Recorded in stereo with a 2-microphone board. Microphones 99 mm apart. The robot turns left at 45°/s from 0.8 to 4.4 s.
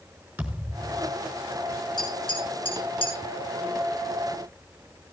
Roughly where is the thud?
Centre.